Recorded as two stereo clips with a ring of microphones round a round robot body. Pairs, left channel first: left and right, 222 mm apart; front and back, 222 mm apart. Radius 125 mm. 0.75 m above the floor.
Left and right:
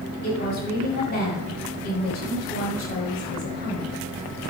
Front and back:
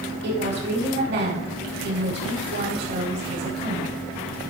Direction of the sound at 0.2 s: 145° left.